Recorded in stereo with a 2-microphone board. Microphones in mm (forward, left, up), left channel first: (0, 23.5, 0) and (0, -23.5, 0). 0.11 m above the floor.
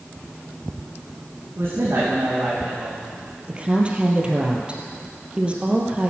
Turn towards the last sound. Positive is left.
turn(degrees=-25)  # may be behind; listen again after turning